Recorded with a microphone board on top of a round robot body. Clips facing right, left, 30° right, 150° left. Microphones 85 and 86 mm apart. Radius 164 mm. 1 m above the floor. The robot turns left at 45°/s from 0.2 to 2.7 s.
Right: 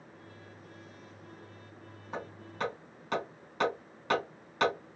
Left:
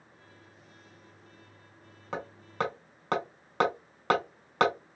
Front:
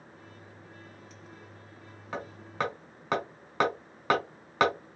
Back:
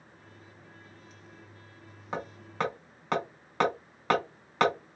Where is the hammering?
80° left, 1.3 m; by 4.7 s 55° left, 1.3 m.